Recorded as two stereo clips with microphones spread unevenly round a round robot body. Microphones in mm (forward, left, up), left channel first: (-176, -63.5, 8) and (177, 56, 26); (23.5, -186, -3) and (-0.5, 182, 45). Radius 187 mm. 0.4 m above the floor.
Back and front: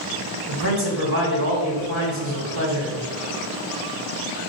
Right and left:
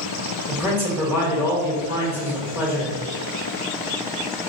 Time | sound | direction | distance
0.5 | a man speaking | straight ahead | 1.4 m